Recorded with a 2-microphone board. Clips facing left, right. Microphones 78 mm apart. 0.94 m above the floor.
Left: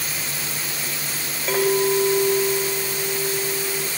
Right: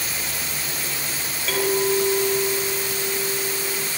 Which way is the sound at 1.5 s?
30° left (ahead or behind).